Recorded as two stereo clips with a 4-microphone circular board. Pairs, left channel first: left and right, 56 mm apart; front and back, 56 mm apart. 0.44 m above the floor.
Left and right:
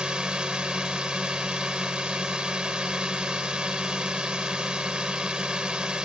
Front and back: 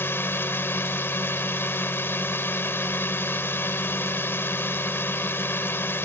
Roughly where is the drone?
Ahead.